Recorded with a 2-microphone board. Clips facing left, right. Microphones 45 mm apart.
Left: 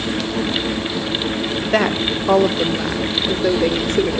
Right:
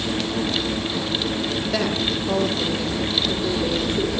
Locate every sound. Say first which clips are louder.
1.6 s a woman speaking: left 8 dB; 40° left (ahead or behind), 2 m; by 4.2 s 70° left (ahead or behind), 3 m